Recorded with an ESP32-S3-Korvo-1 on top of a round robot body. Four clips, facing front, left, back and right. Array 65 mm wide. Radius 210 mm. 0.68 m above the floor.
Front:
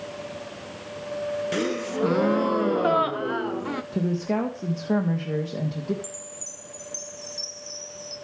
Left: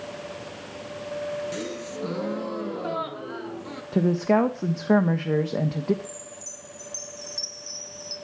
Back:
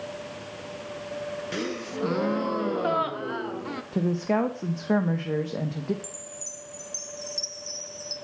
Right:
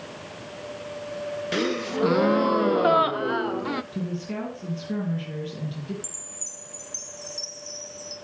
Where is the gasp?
75° right, 1.0 m.